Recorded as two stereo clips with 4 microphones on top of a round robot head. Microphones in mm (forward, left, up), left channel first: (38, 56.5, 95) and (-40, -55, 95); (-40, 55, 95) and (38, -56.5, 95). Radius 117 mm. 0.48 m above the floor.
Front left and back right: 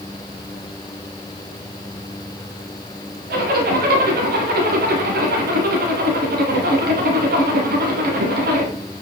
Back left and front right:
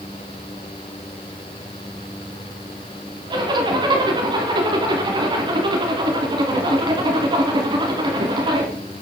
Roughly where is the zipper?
Behind right.